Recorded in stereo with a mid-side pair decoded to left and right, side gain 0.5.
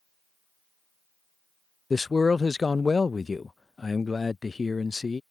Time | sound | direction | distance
1.9 | a man speaking | 25° left | ?